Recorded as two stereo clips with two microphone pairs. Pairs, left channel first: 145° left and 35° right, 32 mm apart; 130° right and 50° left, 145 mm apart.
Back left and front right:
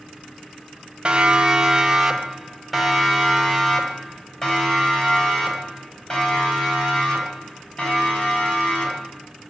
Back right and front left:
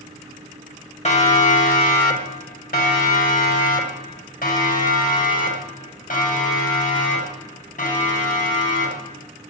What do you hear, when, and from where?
1.1 s a siren: 95° right, 2 m; by 9.1 s 155° right, 8.5 m